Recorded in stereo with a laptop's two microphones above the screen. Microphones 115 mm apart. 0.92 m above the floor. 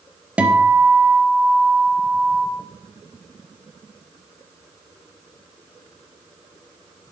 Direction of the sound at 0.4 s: 10° right (ahead or behind).